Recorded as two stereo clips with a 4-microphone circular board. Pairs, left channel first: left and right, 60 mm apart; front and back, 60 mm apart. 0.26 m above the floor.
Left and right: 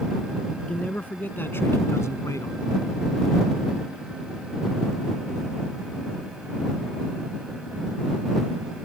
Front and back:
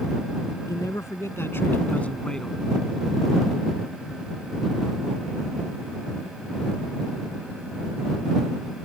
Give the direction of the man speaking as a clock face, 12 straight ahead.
11 o'clock.